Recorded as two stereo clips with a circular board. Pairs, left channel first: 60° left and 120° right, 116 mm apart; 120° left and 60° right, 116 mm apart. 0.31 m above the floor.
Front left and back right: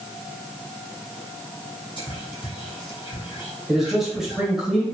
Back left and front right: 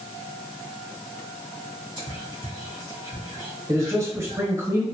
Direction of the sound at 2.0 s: 80° left.